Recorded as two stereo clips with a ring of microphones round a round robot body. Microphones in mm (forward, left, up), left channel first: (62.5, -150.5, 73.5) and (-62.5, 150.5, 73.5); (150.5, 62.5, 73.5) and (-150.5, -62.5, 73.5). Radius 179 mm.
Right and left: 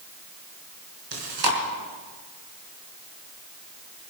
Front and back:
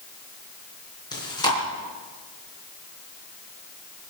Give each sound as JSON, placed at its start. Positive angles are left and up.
{"t": 1.1, "sound": "chewing", "azimuth_deg": 100, "distance_m": 4.0}